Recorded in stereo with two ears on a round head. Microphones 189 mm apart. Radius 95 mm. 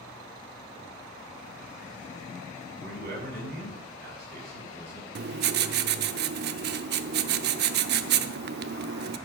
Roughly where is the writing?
Right.